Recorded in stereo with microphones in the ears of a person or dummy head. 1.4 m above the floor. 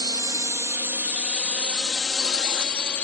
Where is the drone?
20° right (ahead or behind); by 3.0 s 10° left (ahead or behind).